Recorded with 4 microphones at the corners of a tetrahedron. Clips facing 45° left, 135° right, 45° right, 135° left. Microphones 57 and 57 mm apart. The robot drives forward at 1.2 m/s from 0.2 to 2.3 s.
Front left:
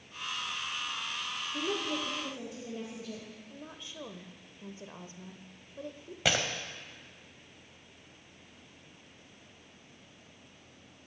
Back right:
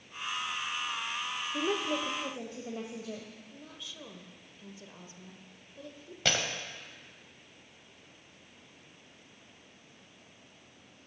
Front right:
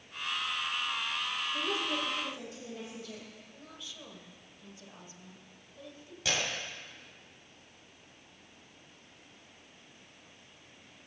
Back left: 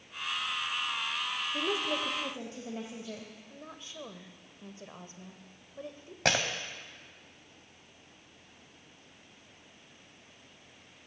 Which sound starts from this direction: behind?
A woman speaking, at 1.5 s.